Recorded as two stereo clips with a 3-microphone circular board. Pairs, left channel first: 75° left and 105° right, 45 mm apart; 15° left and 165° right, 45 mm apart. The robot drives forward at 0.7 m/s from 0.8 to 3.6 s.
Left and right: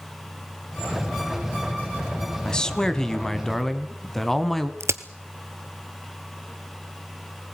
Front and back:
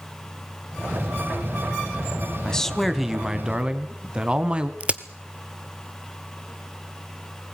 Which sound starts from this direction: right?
A crack, at 4.8 s.